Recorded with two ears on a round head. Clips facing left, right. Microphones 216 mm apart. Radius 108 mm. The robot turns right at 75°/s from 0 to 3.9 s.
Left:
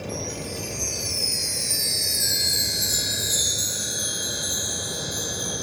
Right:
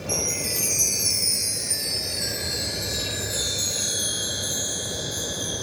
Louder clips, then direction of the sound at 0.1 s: Right 1 dB; 115° right.